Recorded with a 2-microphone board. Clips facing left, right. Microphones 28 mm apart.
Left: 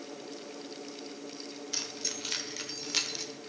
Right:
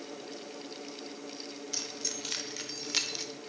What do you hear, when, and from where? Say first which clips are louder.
1.7 s keys jangling: left 2 dB; 15° left (ahead or behind), 1.8 m; by 3.2 s 10° right (ahead or behind), 1.4 m